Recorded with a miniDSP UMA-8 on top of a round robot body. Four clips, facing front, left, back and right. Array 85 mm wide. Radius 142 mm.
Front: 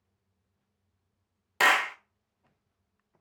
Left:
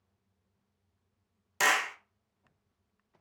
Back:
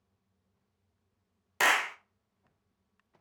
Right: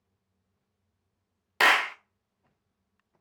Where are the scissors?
No scissors in this recording.